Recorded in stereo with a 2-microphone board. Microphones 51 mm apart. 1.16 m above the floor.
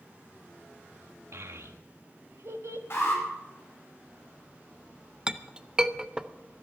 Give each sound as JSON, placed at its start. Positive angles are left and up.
{"t": 1.3, "sound": "a child speaking", "side_deg": -65, "distance_m": 1.2}
{"t": 2.9, "sound": "an alarm", "side_deg": 50, "distance_m": 8.5}
{"t": 5.3, "sound": "a clink", "side_deg": -15, "distance_m": 0.5}